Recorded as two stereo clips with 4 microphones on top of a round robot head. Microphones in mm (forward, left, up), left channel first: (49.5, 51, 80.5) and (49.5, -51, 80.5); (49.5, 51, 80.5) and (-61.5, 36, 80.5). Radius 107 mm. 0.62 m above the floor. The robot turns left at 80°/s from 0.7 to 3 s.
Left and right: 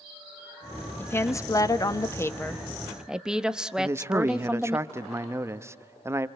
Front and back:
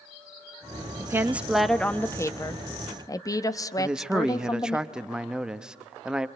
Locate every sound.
1.0 s a woman speaking: 150° left, 1.1 m; by 4.8 s 15° right, 1.1 m
3.8 s a man speaking: 100° right, 1.0 m